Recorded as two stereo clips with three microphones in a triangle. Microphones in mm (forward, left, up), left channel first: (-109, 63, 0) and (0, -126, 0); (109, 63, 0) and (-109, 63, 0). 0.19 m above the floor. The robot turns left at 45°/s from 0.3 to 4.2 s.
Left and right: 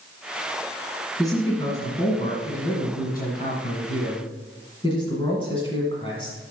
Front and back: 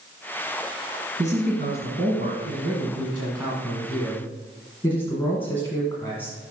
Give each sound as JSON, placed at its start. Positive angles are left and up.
{"t": 1.2, "sound": "a man speaking", "azimuth_deg": -150, "distance_m": 1.8}